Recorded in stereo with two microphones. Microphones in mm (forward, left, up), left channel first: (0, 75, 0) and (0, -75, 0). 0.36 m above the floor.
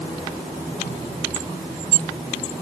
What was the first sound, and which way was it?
Only background noise.